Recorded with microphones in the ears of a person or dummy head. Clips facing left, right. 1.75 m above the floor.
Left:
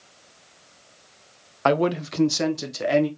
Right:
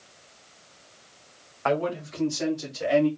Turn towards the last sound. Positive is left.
turn(degrees=55)  # may be behind; listen again after turning